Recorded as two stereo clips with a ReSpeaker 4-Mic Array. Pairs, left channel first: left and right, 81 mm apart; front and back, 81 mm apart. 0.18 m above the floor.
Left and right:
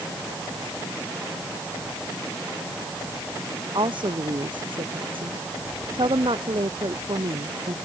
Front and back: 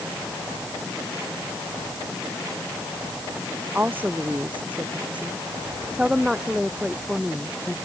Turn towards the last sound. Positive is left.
turn(degrees=-90)